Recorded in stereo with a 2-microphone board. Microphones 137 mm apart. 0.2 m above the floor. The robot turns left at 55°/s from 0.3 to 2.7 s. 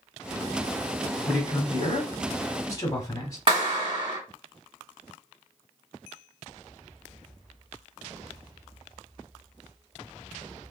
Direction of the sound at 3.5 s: 45° right (ahead or behind).